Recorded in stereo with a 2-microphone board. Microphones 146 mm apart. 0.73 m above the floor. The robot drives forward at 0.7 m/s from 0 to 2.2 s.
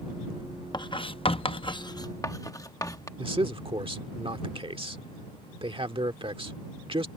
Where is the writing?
30° left (ahead or behind); by 3.1 s 25° left (ahead or behind).